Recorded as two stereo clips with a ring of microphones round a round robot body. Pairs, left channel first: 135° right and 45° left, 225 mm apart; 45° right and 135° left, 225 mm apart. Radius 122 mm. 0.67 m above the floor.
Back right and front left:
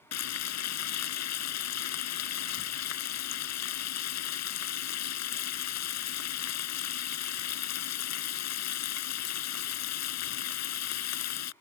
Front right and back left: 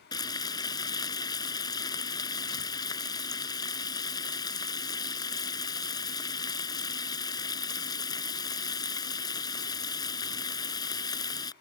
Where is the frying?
120° right.